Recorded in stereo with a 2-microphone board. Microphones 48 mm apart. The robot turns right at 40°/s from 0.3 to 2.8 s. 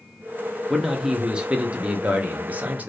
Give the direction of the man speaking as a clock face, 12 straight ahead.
6 o'clock.